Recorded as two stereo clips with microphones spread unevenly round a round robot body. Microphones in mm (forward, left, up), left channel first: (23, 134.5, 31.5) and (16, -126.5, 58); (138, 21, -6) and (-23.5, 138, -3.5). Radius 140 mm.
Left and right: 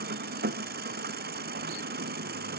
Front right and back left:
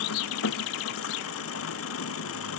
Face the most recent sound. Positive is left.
turn(degrees=-35)